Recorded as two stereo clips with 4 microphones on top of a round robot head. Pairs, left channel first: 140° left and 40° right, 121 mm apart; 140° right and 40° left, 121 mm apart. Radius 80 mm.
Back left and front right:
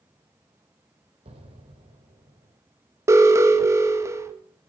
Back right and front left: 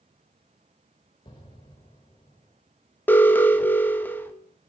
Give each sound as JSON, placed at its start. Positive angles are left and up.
{"t": 1.2, "sound": "an explosion", "azimuth_deg": -85, "distance_m": 2.5}
{"t": 3.1, "sound": "an alarm", "azimuth_deg": -80, "distance_m": 1.3}